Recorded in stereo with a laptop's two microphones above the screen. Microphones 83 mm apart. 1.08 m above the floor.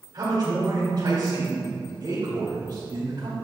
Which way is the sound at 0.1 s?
50° right (ahead or behind).